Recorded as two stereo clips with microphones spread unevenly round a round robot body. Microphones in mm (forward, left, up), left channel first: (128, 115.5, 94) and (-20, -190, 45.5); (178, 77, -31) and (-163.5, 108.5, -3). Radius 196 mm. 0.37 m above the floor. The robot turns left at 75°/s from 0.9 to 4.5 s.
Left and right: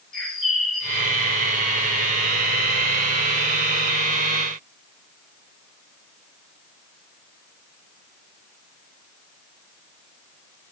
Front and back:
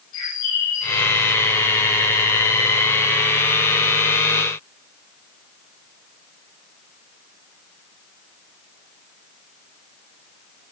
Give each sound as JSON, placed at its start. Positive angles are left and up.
{"t": 0.1, "sound": "a bird", "azimuth_deg": -25, "distance_m": 8.0}